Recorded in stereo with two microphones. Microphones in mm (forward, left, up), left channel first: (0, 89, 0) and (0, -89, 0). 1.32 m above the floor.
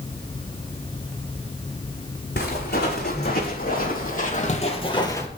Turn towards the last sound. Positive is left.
turn(degrees=15)  # may be behind; listen again after turning